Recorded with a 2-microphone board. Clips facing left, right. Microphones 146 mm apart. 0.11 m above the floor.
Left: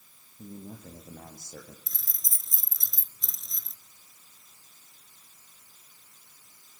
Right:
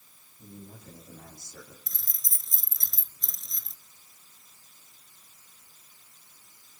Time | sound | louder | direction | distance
0.4 | a man speaking | left 4 dB | 60° left (ahead or behind) | 6.5 m
1.9 | keys jangling | even | 5° left (ahead or behind) | 1.3 m